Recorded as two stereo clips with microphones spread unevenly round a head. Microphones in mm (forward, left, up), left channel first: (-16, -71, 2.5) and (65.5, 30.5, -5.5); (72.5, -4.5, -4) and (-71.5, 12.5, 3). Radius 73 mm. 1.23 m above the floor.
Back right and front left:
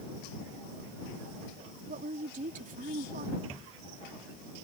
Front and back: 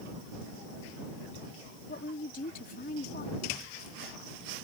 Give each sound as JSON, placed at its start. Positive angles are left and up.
{"t": 1.9, "sound": "a woman speaking", "azimuth_deg": 25}